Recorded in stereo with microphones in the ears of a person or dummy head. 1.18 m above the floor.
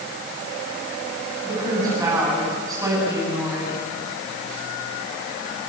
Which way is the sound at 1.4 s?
20° right (ahead or behind).